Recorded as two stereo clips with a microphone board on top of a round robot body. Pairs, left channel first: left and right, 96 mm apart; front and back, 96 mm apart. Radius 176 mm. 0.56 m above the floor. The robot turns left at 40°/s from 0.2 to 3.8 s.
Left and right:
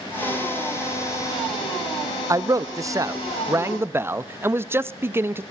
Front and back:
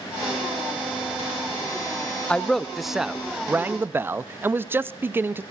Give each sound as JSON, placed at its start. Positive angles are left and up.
{"t": 2.3, "sound": "a man speaking", "azimuth_deg": -70, "distance_m": 0.7}